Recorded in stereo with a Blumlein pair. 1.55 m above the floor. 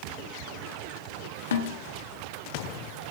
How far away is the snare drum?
About 0.6 m.